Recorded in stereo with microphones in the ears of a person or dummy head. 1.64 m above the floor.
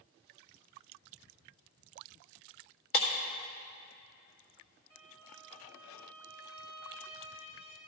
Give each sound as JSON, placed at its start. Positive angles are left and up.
{"t": 2.9, "sound": "breaking glass", "side_deg": 55, "distance_m": 2.0}
{"t": 4.9, "sound": "a violin", "side_deg": 20, "distance_m": 2.5}